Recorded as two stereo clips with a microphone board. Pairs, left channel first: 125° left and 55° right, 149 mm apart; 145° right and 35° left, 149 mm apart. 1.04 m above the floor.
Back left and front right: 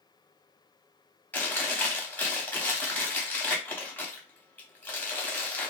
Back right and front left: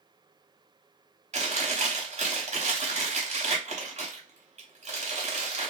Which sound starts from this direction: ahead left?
Chewing, at 1.3 s.